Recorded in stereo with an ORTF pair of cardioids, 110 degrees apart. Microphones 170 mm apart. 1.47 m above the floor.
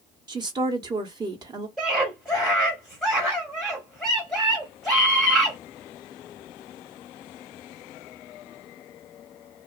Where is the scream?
Straight ahead, 0.9 m.